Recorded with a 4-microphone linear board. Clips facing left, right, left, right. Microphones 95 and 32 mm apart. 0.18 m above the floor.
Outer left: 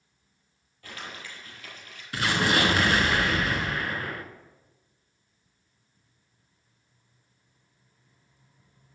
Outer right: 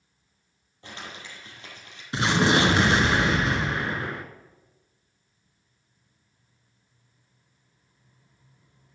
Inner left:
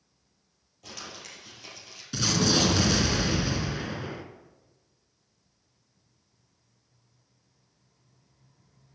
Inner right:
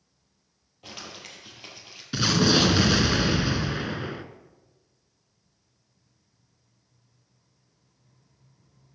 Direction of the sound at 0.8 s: 25° right (ahead or behind).